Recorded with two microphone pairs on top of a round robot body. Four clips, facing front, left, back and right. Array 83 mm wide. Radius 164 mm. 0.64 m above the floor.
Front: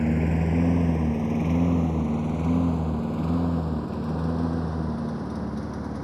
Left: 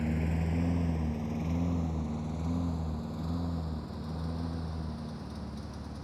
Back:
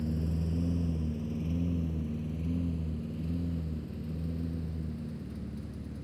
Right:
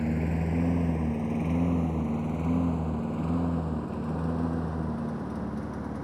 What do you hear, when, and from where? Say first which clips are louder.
0.0 s a lawn mower: right 4 dB, front 10 dB; 10° right; by 6.0 s 30° right